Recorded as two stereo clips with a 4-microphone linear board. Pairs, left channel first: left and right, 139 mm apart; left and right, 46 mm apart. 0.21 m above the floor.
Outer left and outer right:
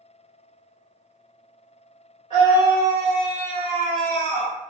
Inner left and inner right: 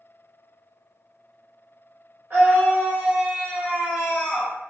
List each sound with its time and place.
2.3 s a scream: 40° right (ahead or behind), 1.7 m; by 4.5 s 15° left (ahead or behind), 1.3 m